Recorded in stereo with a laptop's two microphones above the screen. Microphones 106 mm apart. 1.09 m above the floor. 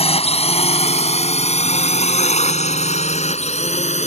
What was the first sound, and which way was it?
A drone, 65° left (ahead or behind).